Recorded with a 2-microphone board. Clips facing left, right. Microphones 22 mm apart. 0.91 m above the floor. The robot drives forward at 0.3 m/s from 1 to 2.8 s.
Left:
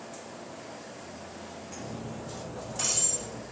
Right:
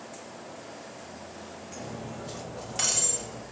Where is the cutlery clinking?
55° right (ahead or behind), 2 m; by 3.4 s 50° right (ahead or behind), 2.5 m.